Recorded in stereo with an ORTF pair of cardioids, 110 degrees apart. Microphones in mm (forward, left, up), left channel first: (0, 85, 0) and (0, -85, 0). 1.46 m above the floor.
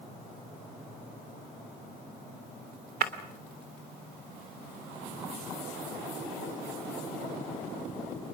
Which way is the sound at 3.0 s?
60° right.